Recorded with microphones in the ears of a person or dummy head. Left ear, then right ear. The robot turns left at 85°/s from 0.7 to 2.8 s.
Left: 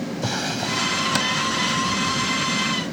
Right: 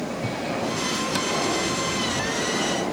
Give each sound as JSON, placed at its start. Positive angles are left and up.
{"t": 0.2, "sound": "a drawer", "azimuth_deg": 65}